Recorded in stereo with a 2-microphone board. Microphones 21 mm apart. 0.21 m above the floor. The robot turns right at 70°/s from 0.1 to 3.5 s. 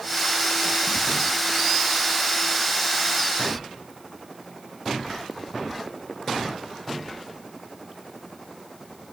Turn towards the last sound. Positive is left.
No sound to turn to.